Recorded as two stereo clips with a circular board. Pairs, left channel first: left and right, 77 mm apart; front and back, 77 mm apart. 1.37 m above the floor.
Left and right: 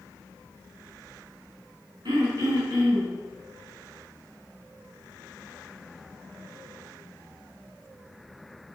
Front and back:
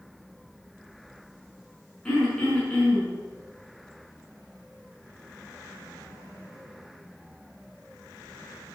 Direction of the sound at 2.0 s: 80° right.